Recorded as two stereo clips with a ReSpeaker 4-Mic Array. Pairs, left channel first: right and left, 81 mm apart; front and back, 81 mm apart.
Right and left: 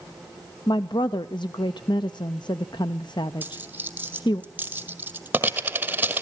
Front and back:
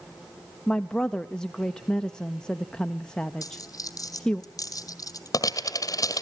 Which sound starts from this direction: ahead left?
A dropped coin, at 3.4 s.